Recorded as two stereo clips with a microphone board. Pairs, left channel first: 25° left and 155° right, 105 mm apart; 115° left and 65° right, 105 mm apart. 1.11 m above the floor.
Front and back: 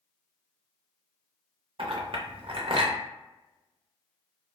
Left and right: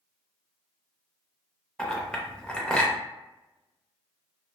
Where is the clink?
170° right, 0.6 m.